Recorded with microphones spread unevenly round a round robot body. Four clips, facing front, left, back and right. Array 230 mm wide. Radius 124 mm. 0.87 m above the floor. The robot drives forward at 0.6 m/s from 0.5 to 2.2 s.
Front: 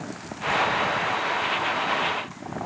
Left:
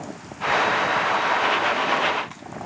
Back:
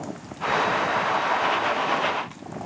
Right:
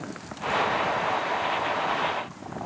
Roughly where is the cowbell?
I don't hear a cowbell.